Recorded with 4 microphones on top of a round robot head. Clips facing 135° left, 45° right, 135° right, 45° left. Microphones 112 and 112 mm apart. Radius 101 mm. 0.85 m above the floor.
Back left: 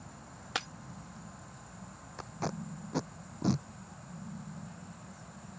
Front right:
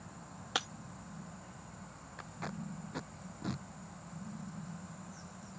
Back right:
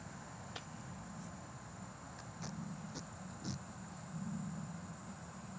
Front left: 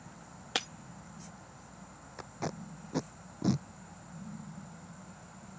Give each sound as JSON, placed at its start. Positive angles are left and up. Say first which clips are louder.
{"t": 0.6, "sound": "breaking glass", "louder": "even, front left 17 dB", "azimuth_deg": 40}
{"t": 2.2, "sound": "tape being pulled", "louder": "back left 6 dB, front left 10 dB", "azimuth_deg": 75}